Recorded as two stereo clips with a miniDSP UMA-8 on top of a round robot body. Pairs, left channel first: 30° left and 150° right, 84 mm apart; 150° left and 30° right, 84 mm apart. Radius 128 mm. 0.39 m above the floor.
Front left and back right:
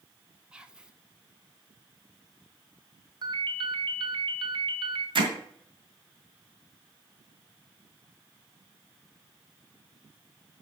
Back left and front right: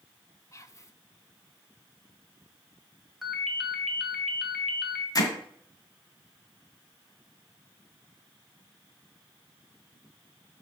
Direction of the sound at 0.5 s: 140° left.